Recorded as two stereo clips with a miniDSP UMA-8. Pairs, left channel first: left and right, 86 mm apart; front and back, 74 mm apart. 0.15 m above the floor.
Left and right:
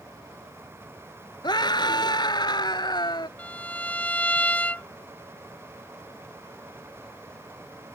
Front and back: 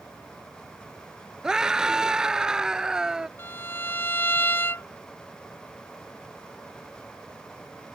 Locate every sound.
1.4 s a scream: 105° left
3.4 s a violin: 30° left